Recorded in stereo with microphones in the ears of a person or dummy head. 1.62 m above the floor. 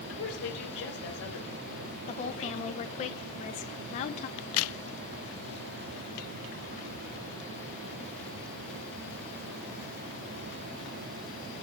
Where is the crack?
75° left (ahead or behind), 0.6 m.